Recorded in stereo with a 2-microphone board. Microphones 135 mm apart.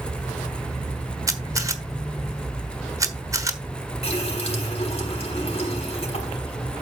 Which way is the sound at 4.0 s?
50° left (ahead or behind).